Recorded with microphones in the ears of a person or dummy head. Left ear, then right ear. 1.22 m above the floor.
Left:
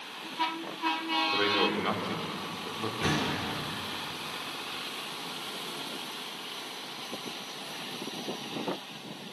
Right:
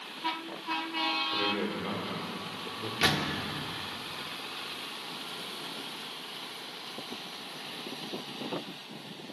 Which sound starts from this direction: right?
A door slam, at 3.0 s.